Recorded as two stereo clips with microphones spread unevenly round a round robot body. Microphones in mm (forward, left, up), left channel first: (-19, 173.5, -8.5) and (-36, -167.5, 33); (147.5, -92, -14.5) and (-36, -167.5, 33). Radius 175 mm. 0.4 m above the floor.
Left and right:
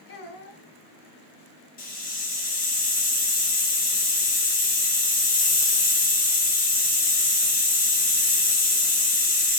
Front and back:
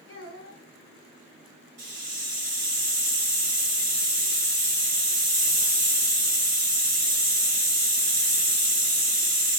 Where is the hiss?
145° left, 2.0 m.